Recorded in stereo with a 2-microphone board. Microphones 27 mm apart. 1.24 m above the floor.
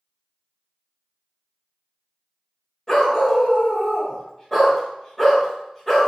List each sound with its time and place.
2.9 s a dog barking: 15° left (ahead or behind), 1.0 m